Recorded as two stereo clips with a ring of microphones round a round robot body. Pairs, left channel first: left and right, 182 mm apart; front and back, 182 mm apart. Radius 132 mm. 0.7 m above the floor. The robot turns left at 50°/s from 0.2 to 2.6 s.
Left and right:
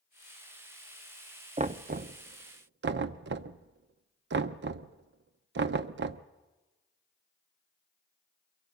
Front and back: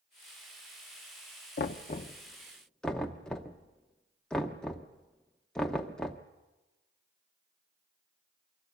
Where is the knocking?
35° right, 0.6 m; by 6.2 s 85° right, 0.6 m.